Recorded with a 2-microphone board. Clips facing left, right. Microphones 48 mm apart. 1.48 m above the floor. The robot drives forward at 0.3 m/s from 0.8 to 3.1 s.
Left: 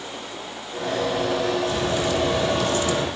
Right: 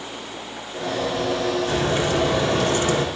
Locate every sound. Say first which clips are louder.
1.7 s a crack: right 2 dB; 35° right (ahead or behind), 3.5 m; by 3.0 s 40° right (ahead or behind), 3 m